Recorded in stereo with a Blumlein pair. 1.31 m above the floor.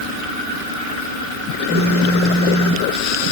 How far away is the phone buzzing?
About 6.5 m.